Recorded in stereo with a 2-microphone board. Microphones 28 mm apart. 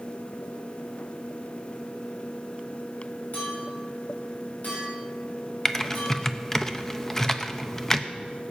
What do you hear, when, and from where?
3.3 s a clink: 70° left (ahead or behind), 6.5 m
5.7 s typing on a keyboard: 15° left (ahead or behind), 0.7 m